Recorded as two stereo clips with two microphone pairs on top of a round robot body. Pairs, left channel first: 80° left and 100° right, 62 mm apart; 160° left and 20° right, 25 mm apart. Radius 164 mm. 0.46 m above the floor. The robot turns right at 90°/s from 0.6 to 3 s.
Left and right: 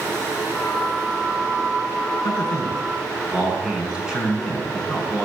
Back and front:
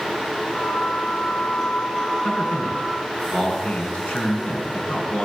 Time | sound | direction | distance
2.2 | a man speaking | 115° left | 7 m